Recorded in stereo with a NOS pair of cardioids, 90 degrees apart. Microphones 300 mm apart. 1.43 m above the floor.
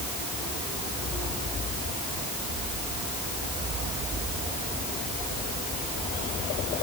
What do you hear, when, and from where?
Only background noise.